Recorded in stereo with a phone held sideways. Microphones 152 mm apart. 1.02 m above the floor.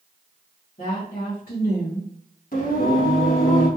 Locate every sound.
0.8 s a woman speaking: 65° left (ahead or behind), 1.6 m
2.5 s singing: 70° left (ahead or behind), 1.5 m